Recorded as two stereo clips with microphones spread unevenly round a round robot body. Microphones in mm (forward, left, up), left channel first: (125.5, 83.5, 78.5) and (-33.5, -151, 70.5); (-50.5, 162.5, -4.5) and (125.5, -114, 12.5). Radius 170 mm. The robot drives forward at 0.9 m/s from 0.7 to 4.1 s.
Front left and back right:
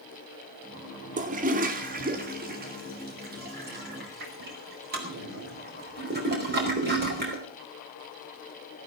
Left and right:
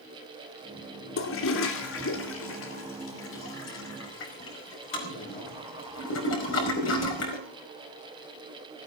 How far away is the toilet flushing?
About 2 m.